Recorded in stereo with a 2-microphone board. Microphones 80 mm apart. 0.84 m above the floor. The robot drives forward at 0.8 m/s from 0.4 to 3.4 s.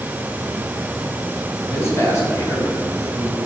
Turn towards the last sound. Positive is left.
turn(degrees=30)  # may be behind; listen again after turning